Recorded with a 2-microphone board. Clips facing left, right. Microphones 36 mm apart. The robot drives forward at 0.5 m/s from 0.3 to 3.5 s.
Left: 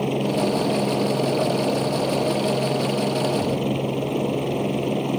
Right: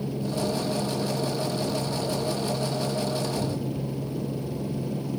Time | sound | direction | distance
0.0 | a helicopter | 60° left (ahead or behind) | ?